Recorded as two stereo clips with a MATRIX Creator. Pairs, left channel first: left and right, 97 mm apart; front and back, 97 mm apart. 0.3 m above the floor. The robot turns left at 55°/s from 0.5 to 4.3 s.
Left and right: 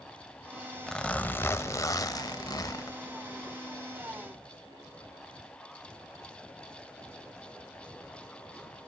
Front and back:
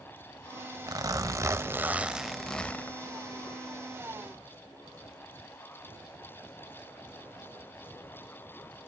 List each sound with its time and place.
0.9 s a zipper: 170° left, 0.6 m; by 3.0 s 55° left, 0.6 m